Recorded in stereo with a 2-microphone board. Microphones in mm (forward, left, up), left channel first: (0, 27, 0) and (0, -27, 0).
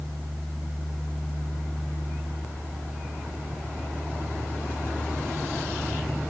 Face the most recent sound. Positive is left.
No sound to turn to.